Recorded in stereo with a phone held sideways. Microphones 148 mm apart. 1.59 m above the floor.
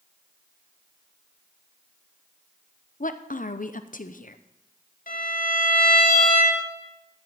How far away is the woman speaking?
About 0.6 m.